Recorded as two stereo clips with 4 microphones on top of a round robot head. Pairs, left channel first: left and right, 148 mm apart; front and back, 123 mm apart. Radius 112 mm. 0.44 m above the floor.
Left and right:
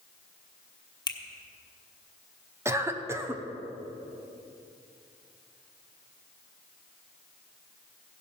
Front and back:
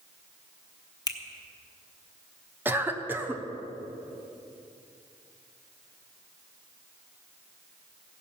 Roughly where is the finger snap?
Ahead left.